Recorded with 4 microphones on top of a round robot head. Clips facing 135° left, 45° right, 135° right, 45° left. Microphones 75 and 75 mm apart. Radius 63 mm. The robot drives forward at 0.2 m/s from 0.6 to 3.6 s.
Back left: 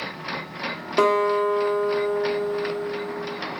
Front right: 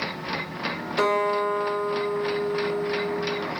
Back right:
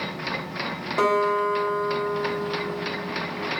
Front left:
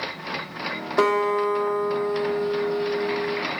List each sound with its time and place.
1.0 s a guitar: 115° left, 1.1 m; by 3.4 s 135° left, 1.3 m